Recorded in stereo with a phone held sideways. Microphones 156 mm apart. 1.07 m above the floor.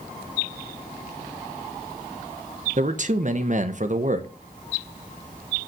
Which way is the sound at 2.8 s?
50° right (ahead or behind).